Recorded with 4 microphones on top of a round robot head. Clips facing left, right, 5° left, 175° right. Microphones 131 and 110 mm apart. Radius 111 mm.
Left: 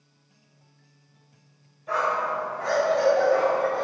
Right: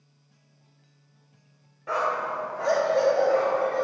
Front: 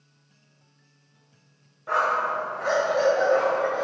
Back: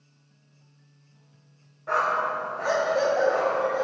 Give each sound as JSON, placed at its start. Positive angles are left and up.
{"t": 1.9, "sound": "a dog barking", "azimuth_deg": -80, "distance_m": 1.8}